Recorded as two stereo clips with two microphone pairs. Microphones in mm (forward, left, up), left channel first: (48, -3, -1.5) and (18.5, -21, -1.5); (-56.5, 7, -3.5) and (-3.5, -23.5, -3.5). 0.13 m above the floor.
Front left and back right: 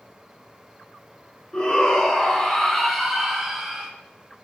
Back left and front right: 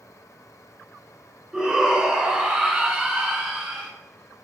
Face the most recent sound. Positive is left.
turn(degrees=-85)